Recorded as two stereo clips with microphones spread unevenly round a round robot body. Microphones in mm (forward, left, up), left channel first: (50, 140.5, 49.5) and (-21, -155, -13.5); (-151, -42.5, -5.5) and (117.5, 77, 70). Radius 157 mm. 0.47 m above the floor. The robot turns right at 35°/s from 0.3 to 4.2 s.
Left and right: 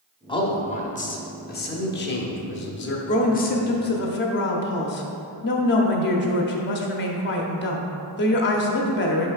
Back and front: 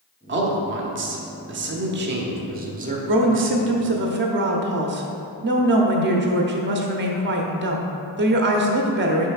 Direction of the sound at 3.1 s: 15° left.